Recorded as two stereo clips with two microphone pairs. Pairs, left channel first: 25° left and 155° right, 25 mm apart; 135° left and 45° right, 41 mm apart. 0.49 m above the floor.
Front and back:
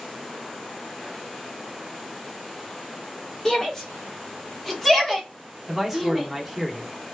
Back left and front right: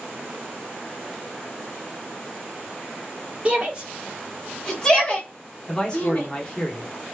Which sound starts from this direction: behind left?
A man speaking, at 5.7 s.